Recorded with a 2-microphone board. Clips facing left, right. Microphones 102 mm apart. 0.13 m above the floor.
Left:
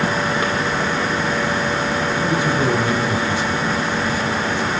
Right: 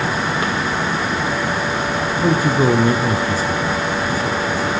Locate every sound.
2.1 s a man speaking: 40° right (ahead or behind), 3 m